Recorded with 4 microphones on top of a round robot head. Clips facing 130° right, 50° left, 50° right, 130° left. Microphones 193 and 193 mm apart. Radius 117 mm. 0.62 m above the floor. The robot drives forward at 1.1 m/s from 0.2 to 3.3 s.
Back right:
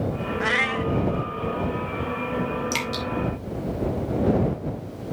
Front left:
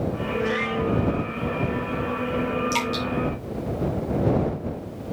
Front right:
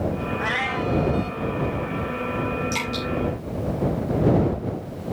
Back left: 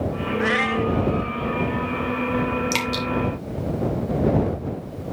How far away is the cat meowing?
About 0.9 m.